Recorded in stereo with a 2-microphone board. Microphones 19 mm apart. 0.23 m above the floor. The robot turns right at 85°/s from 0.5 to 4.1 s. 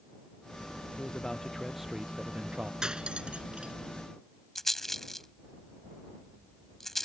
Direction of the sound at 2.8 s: 40° right (ahead or behind).